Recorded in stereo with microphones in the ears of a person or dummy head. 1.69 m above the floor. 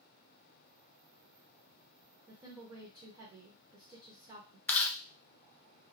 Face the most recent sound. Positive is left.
turn(degrees=15)  # may be behind; listen again after turning